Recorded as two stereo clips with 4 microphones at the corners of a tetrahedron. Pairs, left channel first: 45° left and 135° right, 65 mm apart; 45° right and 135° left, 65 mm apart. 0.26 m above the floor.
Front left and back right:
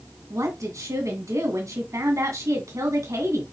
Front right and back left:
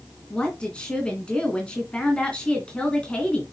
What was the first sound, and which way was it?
A woman speaking, 115° right.